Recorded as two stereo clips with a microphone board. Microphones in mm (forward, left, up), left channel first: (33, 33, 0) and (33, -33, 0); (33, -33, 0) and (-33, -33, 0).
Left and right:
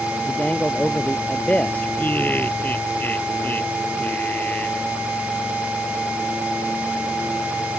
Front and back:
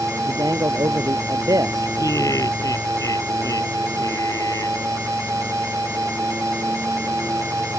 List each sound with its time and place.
0.3 s a man speaking: 155° left
2.0 s laughter: 25° left